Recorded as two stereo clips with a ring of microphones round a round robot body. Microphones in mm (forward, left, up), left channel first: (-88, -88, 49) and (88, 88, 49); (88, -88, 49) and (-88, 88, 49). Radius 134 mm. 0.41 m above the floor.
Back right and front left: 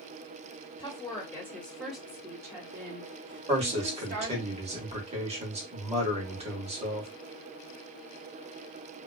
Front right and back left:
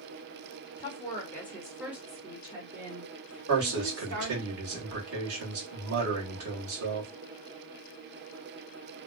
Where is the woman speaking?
90° right, 1.3 m; by 4.5 s 100° left, 2 m.